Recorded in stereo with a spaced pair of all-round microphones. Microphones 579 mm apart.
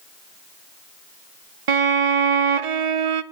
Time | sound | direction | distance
1.7 | a violin | 60° right (ahead or behind) | 0.6 m